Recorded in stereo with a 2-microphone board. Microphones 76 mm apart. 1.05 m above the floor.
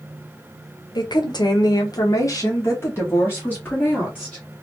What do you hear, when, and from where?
0.9 s a woman speaking: 65° left (ahead or behind), 0.8 m; by 4.5 s 20° left (ahead or behind), 1.9 m